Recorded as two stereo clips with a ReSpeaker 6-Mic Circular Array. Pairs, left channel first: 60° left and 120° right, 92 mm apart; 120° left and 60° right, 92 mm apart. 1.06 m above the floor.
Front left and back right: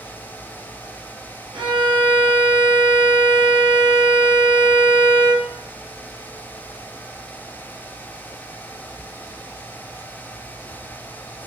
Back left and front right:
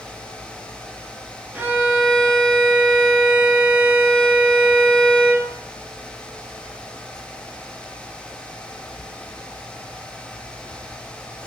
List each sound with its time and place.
1.5 s a violin: 125° right, 0.6 m